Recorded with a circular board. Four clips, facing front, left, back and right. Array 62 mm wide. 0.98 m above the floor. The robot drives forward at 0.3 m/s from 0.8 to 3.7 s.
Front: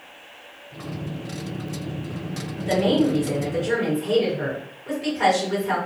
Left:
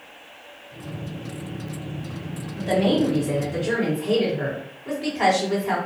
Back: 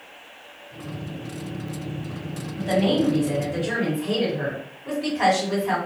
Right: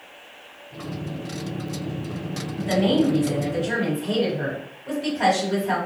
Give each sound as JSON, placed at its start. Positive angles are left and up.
{"t": 2.6, "sound": "a woman speaking", "azimuth_deg": 125, "distance_m": 1.9}